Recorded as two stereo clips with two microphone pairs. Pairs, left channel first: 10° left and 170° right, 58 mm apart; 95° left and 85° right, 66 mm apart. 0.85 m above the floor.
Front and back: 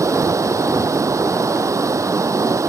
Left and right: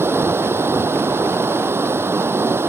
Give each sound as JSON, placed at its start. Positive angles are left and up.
{"t": 0.0, "sound": "running water", "azimuth_deg": -140}